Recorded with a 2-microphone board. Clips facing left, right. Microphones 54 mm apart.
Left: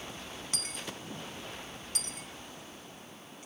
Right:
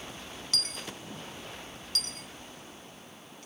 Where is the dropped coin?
20° left (ahead or behind), 0.5 m.